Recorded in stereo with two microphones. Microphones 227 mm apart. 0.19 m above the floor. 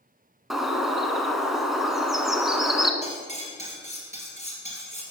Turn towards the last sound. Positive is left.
turn(degrees=30)  # may be behind; listen again after turning